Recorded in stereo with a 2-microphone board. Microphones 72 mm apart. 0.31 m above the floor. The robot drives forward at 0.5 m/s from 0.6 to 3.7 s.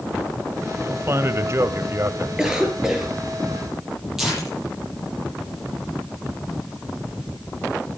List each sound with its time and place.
0.8 s a man speaking: 35° right (ahead or behind), 1.3 m; by 2.3 s 40° right (ahead or behind), 1.2 m
2.4 s a cough: 10° right (ahead or behind), 5.5 m
4.2 s tearing paper: 5° right (ahead or behind), 9.5 m